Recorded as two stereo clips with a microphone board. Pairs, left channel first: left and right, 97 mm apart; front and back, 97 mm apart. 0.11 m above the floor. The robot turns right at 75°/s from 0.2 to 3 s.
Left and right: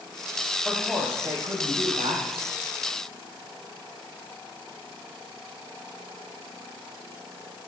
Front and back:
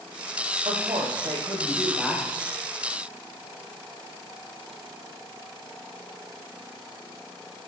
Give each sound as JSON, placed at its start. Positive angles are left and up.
{"t": 0.7, "sound": "a woman speaking", "azimuth_deg": 165, "distance_m": 4.5}